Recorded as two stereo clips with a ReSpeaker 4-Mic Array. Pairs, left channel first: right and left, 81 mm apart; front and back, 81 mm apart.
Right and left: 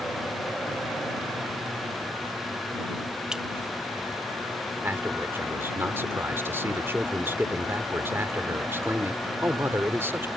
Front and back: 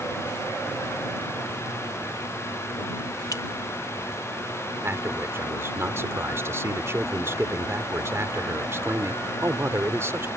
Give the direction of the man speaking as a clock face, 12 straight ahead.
7 o'clock.